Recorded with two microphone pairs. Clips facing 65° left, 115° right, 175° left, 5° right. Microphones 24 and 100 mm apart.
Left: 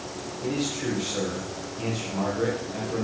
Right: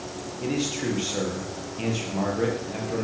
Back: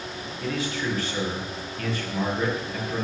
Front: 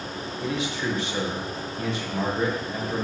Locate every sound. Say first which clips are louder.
0.4 s a man speaking: right 1 dB, even; 80° right, 4.5 m